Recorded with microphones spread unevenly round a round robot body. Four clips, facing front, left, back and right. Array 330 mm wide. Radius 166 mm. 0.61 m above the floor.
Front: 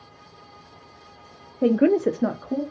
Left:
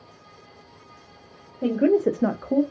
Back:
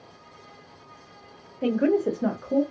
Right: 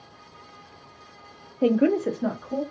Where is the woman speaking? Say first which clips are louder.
Left 1 dB, front 4 dB; 30° right, 0.7 m; by 2.6 s 65° left, 1.0 m.